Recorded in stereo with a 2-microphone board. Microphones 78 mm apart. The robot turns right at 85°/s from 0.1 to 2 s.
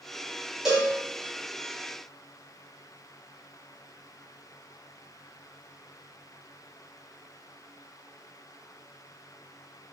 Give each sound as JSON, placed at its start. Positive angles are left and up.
{"t": 0.7, "sound": "a cowbell", "side_deg": -10, "distance_m": 0.9}